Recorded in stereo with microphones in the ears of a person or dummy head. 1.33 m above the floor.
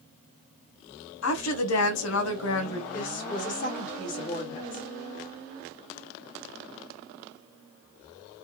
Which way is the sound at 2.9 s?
45° left (ahead or behind).